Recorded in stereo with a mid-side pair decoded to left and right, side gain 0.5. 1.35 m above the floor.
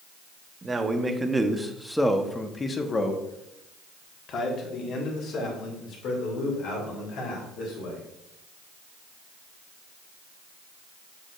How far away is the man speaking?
About 1.2 m.